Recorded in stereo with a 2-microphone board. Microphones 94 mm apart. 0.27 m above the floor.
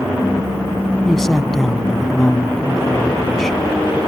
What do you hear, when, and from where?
1.1 s a man speaking: 5° left (ahead or behind)